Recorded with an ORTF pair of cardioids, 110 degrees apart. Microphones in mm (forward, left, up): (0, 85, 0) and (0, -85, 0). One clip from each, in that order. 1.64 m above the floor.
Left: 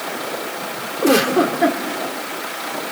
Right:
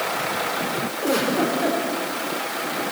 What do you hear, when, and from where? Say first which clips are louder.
1.0 s a giggle: left 7 dB; 55° left, 3.5 m